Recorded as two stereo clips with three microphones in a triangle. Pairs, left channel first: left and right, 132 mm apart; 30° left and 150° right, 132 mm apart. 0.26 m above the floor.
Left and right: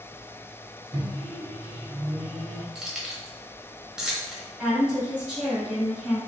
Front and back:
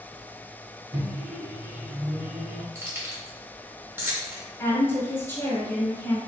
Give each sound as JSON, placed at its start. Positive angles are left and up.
{"t": 0.9, "sound": "a microwave", "azimuth_deg": -115, "distance_m": 0.7}
{"t": 2.8, "sound": "keys jangling", "azimuth_deg": -165, "distance_m": 0.6}
{"t": 4.6, "sound": "a woman speaking", "azimuth_deg": -15, "distance_m": 1.6}